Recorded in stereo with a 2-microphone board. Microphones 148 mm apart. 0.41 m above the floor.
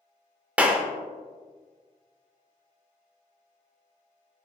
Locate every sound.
0.6 s a clap: 10° right (ahead or behind), 0.6 m